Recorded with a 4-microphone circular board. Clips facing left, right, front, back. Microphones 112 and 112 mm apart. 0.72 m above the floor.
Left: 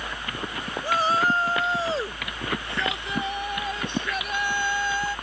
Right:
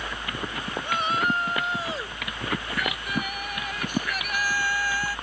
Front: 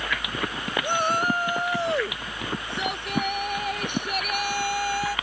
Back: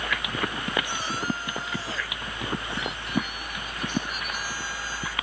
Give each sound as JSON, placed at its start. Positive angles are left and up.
{"t": 0.8, "sound": "a shout", "azimuth_deg": 35}